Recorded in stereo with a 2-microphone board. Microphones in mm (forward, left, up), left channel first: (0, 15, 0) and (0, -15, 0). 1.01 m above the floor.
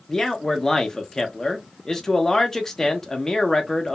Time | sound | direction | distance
0.1 | a man speaking | 20° left (ahead or behind) | 0.8 m